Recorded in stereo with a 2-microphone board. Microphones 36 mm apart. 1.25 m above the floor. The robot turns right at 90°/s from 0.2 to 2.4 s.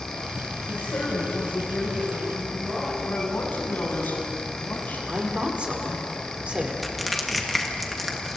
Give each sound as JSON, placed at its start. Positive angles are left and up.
{"t": 0.7, "sound": "a woman speaking", "azimuth_deg": 50, "distance_m": 6.5}
{"t": 3.0, "sound": "a man speaking", "side_deg": 65, "distance_m": 7.5}
{"t": 5.1, "sound": "a woman speaking", "side_deg": -35, "distance_m": 3.5}
{"t": 6.8, "sound": "crushing", "side_deg": 0, "distance_m": 1.9}